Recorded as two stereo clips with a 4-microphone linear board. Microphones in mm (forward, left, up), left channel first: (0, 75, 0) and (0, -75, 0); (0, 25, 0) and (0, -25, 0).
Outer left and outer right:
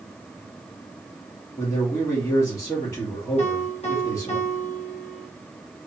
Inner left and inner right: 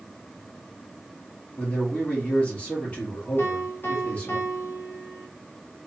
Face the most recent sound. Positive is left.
turn(degrees=45)  # may be behind; listen again after turning